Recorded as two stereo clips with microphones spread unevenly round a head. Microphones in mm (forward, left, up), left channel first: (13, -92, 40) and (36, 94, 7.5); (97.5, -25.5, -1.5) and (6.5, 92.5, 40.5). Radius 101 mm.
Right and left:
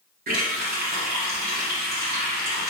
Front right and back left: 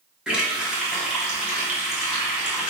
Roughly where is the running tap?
Ahead left.